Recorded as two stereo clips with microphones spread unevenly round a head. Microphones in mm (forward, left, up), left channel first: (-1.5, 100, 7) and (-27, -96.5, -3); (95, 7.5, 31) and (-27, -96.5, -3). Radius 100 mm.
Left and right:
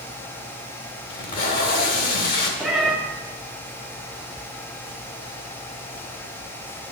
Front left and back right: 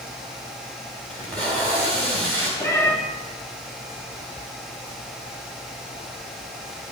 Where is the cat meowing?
Straight ahead, 1.4 m.